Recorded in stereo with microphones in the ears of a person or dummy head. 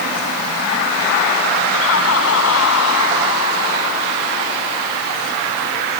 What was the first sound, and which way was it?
Laughter, 90° left.